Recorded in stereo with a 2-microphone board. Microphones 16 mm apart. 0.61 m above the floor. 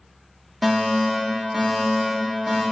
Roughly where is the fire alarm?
Centre.